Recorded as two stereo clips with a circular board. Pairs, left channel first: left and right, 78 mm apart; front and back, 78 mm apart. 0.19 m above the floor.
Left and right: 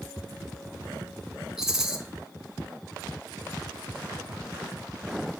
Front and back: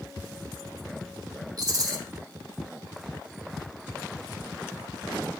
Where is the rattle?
175° right, 0.7 m.